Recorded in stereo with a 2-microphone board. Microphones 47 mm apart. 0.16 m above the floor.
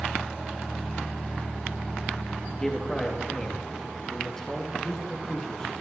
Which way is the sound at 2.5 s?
10° left (ahead or behind).